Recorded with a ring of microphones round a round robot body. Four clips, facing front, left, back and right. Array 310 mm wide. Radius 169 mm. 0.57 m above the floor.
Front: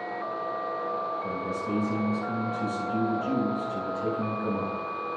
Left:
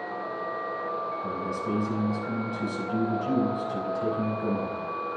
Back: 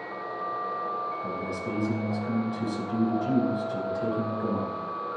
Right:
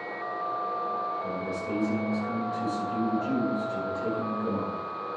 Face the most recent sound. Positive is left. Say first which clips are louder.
# left 1 dB, front 1 dB
turn(degrees=150)